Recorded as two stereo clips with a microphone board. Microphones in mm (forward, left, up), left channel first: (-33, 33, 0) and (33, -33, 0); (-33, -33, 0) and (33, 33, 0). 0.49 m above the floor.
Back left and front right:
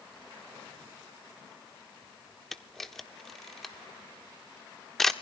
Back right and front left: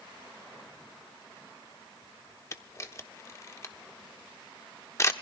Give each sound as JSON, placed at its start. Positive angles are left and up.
{"t": 2.5, "sound": "a camera shutter", "azimuth_deg": -140, "distance_m": 1.0}